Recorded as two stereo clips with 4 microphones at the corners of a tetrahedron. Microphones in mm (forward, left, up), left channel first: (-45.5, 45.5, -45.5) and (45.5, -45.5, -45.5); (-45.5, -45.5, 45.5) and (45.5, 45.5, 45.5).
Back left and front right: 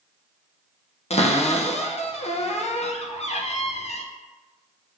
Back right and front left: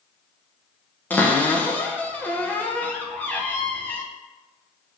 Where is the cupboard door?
155° left, 0.5 m.